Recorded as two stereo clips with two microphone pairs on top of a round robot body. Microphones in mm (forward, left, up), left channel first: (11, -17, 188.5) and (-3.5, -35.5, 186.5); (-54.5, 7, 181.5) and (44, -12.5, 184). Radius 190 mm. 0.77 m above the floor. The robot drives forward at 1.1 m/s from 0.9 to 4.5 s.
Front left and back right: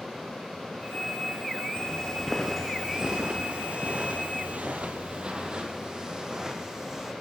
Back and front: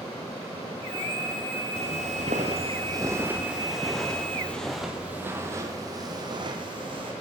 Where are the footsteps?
10° left, 1.0 m; by 7.1 s 55° right, 2.5 m.